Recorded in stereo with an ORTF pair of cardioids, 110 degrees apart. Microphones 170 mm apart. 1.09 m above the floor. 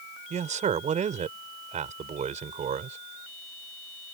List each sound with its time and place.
0.3 s a man speaking: 45° right